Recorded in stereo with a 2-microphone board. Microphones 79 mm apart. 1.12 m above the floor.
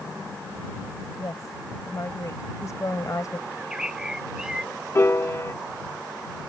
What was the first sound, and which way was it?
A woman speaking, 45° left (ahead or behind).